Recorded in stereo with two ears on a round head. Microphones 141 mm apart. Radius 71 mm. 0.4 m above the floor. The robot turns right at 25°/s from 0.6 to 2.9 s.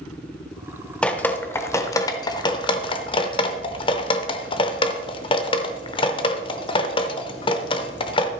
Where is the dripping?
5° left (ahead or behind), 0.8 m; by 8.3 s 30° left (ahead or behind), 0.8 m.